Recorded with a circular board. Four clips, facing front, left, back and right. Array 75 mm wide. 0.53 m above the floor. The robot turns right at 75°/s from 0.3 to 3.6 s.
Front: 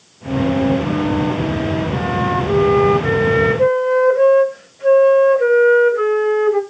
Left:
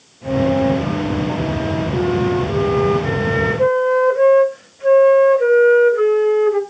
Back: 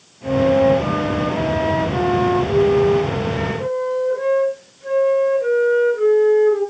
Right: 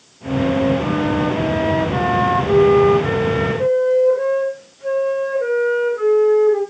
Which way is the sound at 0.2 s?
155° left.